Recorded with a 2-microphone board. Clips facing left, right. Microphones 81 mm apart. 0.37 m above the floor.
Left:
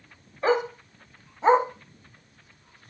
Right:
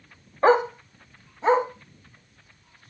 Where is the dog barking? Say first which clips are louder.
Right 5 dB; 45° right (ahead or behind), 0.8 m; by 2.9 s 40° left (ahead or behind), 2.5 m.